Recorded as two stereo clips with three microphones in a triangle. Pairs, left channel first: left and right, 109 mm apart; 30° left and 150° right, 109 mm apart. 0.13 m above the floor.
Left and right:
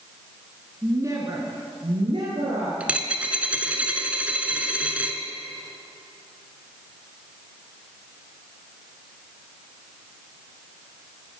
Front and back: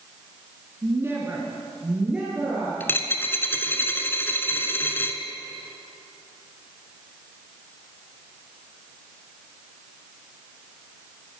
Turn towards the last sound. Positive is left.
turn(degrees=-25)